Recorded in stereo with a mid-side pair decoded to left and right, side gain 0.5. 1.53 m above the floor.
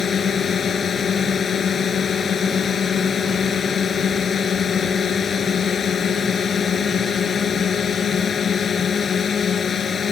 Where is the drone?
40° left.